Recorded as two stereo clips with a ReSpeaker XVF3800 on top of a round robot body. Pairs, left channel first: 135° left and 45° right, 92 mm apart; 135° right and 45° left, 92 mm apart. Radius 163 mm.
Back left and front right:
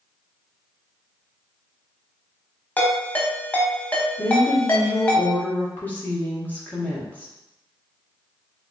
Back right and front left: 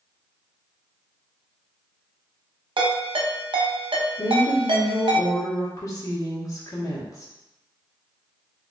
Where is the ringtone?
65° left, 0.8 m.